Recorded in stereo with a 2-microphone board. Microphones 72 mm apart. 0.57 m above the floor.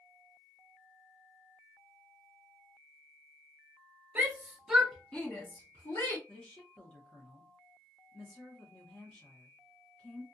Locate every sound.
4.2 s a shout: 30° right (ahead or behind), 1.0 m; by 6.2 s 55° left (ahead or behind), 1.3 m
6.3 s a woman speaking: 15° left (ahead or behind), 1.0 m